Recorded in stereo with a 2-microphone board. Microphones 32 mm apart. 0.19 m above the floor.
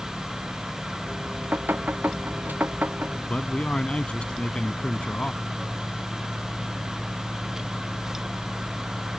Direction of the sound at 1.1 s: 85° right.